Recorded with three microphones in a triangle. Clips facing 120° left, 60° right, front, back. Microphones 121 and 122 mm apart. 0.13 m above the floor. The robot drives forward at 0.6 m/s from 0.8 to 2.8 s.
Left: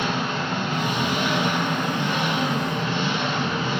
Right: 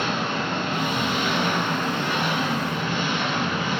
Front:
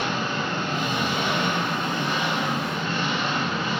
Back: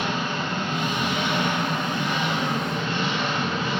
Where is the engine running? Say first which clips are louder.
Even, even; 35° left, 2.0 m; by 3.8 s 85° left, 1.5 m.